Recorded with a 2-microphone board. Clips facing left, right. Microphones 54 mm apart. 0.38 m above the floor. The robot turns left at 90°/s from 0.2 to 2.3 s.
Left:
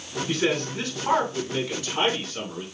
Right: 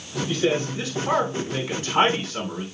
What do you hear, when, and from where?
0.3 s a man speaking: 105° left, 3 m; by 2.6 s 75° right, 3 m